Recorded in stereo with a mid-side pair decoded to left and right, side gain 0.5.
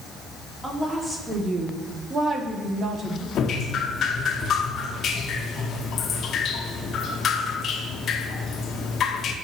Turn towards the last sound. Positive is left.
turn(degrees=55)